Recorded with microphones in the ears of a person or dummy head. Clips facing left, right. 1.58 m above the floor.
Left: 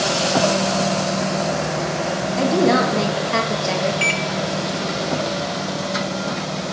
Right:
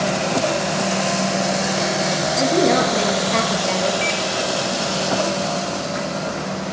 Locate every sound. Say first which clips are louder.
2.4 s a woman speaking: left 1 dB; 5° left (ahead or behind), 0.7 m
4.0 s a microwave: right 1 dB; 60° left (ahead or behind), 0.6 m